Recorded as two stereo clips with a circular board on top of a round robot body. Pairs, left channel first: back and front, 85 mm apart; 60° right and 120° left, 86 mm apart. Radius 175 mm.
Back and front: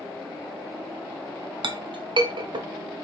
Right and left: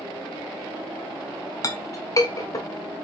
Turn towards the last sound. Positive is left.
turn(degrees=-15)